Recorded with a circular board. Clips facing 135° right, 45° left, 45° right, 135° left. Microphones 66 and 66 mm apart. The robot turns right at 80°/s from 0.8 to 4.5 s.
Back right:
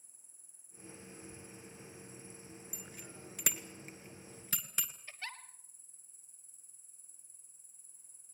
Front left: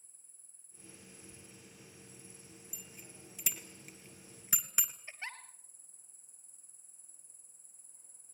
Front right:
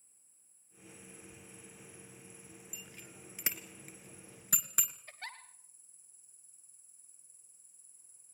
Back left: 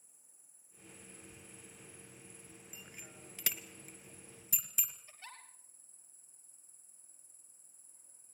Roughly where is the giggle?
Ahead right.